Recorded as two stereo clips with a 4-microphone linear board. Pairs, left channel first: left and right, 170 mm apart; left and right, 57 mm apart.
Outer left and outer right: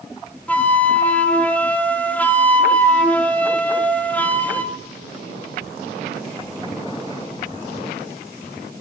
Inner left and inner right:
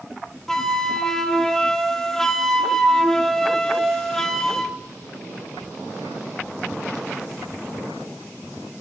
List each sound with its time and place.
0.5 s a flute: 10° left (ahead or behind), 0.8 m